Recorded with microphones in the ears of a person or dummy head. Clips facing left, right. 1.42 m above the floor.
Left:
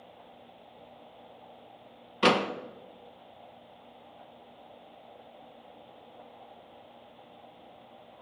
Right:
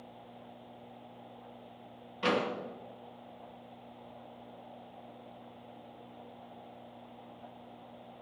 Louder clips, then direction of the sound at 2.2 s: Left 5 dB; 70° left (ahead or behind).